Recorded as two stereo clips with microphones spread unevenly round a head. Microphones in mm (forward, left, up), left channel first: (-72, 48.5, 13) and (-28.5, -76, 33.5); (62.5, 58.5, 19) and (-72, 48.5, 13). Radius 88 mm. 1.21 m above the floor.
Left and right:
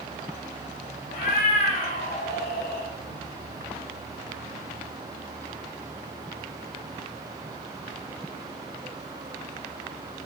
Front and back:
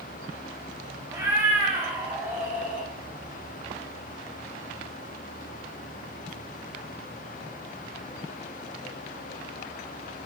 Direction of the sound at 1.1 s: 115° left.